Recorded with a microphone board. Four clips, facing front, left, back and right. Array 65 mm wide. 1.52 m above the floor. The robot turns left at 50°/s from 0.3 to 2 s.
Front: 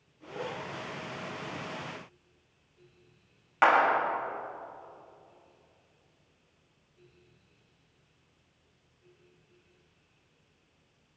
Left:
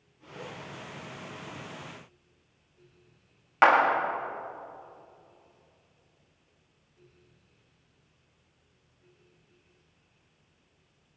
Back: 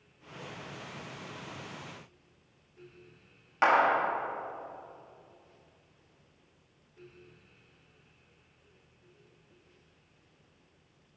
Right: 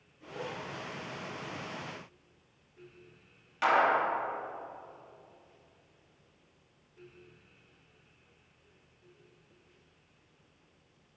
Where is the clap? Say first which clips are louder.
Left 5 dB, front 1 dB; 80° left, 1.8 m.